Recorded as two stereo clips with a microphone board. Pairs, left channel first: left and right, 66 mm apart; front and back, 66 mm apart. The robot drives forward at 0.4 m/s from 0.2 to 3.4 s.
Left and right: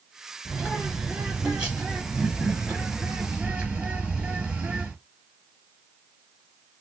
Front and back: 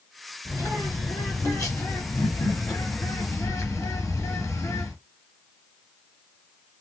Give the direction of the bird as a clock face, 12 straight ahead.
1 o'clock.